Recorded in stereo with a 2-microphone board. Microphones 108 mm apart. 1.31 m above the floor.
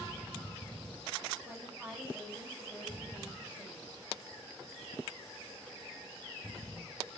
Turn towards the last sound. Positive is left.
turn(degrees=-20)  # may be behind; listen again after turning